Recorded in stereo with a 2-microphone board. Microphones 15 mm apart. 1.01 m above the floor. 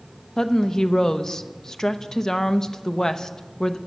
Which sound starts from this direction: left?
A woman speaking, at 0.4 s.